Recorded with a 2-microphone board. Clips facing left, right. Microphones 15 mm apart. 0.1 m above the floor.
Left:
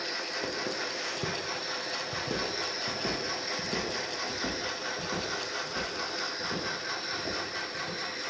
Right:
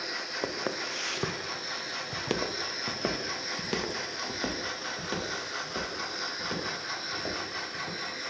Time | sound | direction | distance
0.4 | footsteps | 35° right (ahead or behind) | 0.9 m